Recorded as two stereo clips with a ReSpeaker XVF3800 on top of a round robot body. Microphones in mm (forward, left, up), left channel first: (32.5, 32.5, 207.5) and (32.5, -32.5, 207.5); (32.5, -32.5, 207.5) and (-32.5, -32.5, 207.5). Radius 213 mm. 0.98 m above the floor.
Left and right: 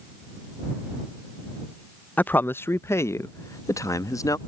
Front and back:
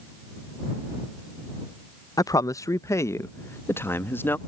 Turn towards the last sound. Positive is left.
turn(degrees=60)